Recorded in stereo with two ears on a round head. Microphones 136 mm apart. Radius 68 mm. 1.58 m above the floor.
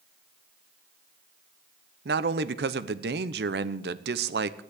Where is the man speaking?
75° right (ahead or behind), 0.9 m.